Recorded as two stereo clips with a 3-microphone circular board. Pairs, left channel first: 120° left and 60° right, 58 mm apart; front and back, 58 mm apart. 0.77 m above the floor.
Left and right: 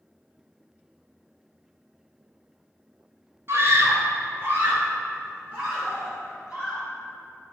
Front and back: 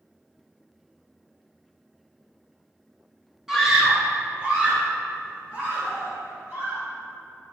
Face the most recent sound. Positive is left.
turn(degrees=-125)